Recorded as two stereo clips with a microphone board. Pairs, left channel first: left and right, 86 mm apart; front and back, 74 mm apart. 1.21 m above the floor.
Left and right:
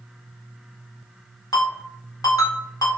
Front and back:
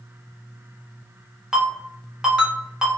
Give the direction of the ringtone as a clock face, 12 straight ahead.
9 o'clock.